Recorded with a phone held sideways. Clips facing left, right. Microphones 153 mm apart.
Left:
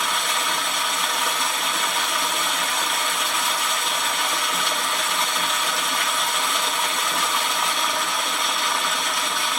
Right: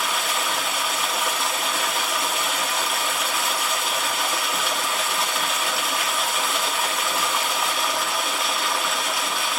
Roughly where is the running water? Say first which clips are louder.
Even; centre.